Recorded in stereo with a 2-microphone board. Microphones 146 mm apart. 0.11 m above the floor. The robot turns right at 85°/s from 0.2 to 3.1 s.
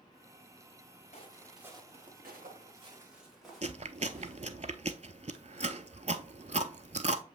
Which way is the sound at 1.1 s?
50° left (ahead or behind).